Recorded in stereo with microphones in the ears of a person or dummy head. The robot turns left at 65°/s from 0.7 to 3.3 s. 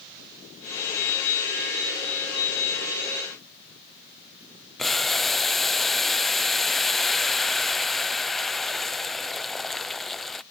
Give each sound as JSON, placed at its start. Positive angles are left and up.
{"t": 4.8, "sound": "boiling", "side_deg": 0}